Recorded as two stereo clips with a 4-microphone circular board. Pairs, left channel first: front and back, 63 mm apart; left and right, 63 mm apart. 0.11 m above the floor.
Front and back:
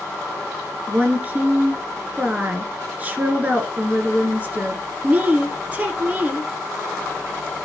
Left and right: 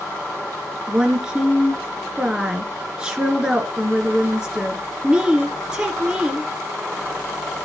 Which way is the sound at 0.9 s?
150° right.